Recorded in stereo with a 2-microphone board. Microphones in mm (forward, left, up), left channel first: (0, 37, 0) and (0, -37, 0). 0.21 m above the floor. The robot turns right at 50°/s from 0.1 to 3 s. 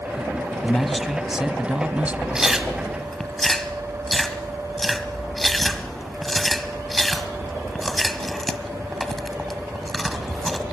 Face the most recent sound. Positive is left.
turn(degrees=5)  # may be behind; listen again after turning